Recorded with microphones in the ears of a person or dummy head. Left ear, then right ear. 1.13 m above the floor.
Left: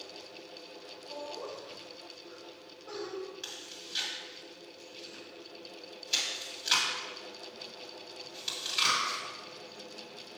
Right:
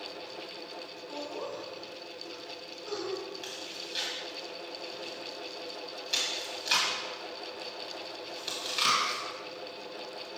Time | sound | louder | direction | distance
1.1 | laughter | right 2 dB | 55° right (ahead or behind) | 3 m
3.4 | chewing | right 4 dB | 5° left (ahead or behind) | 2.0 m